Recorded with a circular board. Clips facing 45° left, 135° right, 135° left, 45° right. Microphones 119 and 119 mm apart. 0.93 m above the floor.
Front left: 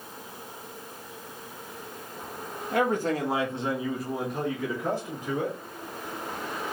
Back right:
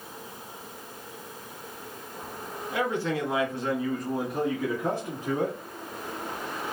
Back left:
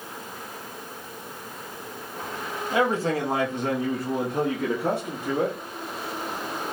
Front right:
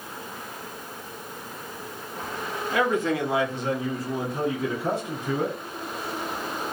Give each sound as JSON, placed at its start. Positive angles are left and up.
{"t": 2.7, "sound": "a man speaking", "azimuth_deg": 75, "distance_m": 1.1}